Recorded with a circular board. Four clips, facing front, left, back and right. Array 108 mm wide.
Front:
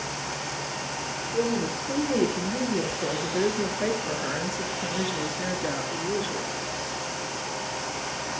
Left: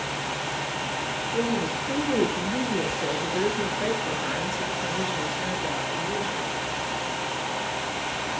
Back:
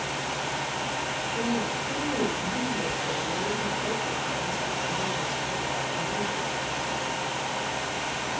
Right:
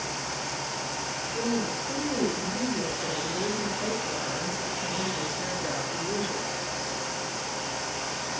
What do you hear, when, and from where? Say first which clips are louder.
1.3 s a woman speaking: left 2 dB, front 4 dB; 60° left, 3.5 m; by 6.5 s 15° right, 2 m